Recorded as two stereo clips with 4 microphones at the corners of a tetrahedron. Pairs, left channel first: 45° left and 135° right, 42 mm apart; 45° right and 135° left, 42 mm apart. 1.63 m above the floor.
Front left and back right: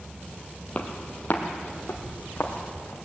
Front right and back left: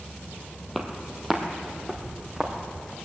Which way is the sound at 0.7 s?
45° left.